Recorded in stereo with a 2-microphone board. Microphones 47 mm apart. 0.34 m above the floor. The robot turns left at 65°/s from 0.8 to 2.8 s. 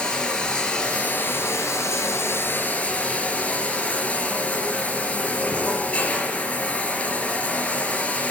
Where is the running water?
160° left, 4 m; by 8.3 s 30° left, 4 m.